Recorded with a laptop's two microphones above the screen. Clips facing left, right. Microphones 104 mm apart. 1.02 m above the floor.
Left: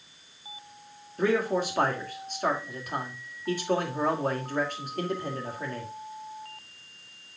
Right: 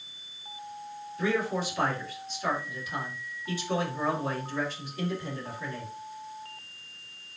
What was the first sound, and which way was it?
A man speaking, 50° left (ahead or behind).